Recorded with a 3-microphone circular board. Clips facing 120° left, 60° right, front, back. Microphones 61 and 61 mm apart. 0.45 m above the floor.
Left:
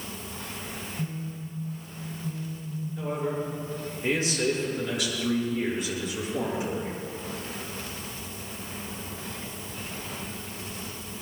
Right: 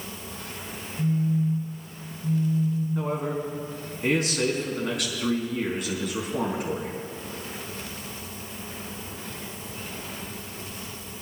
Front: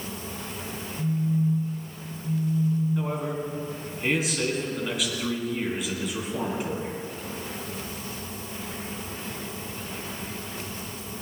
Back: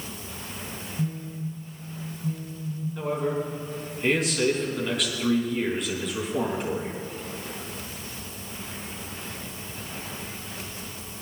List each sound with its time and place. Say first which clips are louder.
1.0 s a phone buzzing: right 13 dB, front 7 dB; 125° right, 6 m
3.0 s a man speaking: right 2 dB, back 2 dB; 85° right, 4.5 m